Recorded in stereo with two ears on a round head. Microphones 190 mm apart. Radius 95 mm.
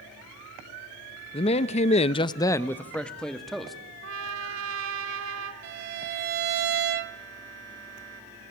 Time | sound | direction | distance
1.3 | a man speaking | 25° left (ahead or behind) | 0.7 m
4.0 | a trumpet | 65° right (ahead or behind) | 1.5 m
5.6 | a violin | 50° right (ahead or behind) | 0.8 m